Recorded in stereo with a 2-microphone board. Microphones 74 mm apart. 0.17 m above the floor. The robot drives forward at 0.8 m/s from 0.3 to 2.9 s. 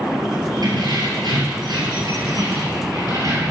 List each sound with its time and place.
0.6 s keys jangling: 65° right (ahead or behind), 2.5 m; by 3.5 s 55° right (ahead or behind), 2.5 m